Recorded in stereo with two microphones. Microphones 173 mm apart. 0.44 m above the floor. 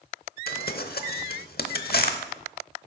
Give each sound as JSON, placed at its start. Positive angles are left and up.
{"t": 0.5, "sound": "crumpling", "side_deg": 65, "distance_m": 0.9}